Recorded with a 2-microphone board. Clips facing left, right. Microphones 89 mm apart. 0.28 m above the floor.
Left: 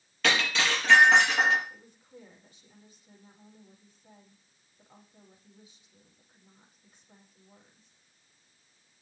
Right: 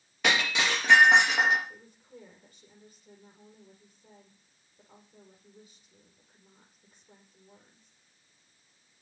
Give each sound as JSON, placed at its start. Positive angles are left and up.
{"t": 0.2, "sound": "breaking glass", "side_deg": -15, "distance_m": 4.0}
{"t": 1.7, "sound": "a woman speaking", "side_deg": -55, "distance_m": 7.0}